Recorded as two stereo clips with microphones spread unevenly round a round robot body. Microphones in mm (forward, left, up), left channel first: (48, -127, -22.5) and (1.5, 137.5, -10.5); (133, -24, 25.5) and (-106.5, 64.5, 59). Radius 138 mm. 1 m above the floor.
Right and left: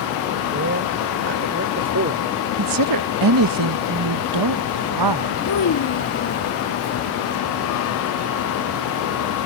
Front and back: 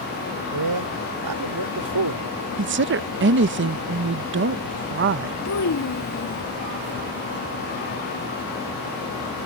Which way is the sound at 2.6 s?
110° left.